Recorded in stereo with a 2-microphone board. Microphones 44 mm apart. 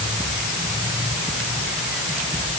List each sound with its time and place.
Only background noise.